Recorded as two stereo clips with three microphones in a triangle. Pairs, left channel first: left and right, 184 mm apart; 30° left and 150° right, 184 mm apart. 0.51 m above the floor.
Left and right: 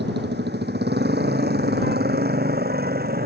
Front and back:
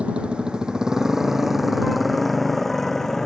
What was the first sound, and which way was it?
A motorcycle, 65° right.